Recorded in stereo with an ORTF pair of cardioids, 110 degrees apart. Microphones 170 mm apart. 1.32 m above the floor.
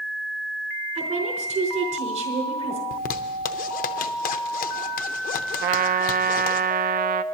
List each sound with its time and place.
0.9 s a woman speaking: 50° right, 5 m
2.9 s a zipper: 60° left, 0.9 m
5.6 s a trumpet: 70° right, 0.6 m